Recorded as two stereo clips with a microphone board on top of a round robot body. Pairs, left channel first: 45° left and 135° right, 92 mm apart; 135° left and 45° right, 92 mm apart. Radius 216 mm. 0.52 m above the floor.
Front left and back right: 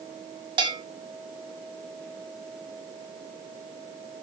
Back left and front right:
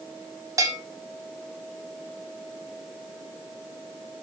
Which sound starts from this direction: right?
A bell, at 0.6 s.